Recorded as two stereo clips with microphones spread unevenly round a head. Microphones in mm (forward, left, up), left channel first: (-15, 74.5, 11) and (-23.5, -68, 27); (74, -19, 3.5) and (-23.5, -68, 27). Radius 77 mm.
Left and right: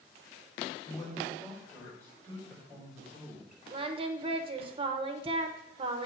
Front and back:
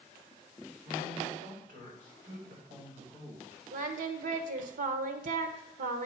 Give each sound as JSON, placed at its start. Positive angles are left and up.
{"t": 0.8, "sound": "a man speaking", "azimuth_deg": 150, "distance_m": 4.0}
{"t": 3.7, "sound": "singing", "azimuth_deg": -150, "distance_m": 0.9}